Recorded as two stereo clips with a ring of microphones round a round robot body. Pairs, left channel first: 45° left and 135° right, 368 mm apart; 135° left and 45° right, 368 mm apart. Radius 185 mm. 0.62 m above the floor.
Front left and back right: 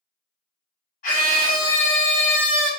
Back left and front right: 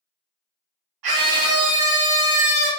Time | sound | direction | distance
1.0 | a scream | 20° right | 1.1 m